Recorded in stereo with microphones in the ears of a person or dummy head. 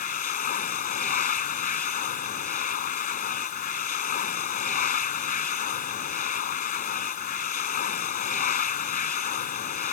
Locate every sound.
0.0 s a machine running: 45° left (ahead or behind)